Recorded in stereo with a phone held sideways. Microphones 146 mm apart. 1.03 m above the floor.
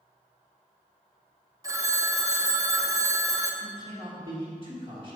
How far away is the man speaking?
About 1.6 m.